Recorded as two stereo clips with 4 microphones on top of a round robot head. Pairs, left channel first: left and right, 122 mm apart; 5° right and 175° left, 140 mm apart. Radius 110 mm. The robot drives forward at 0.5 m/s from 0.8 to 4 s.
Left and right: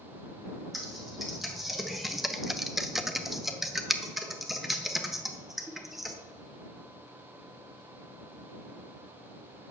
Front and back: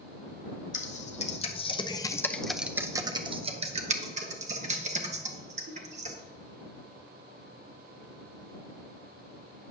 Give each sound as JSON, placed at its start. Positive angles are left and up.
{"t": 0.7, "sound": "typing on a keyboard", "azimuth_deg": 0, "distance_m": 1.0}